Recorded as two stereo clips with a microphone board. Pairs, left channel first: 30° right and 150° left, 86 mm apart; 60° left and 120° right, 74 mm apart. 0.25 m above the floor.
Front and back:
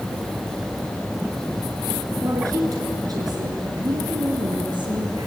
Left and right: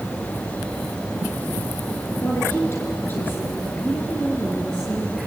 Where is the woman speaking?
105° left, 4 m; by 5.3 s 145° left, 4.5 m.